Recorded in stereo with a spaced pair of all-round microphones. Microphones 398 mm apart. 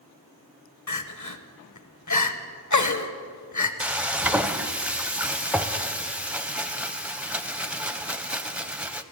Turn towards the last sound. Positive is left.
turn(degrees=-5)  # may be behind; listen again after turning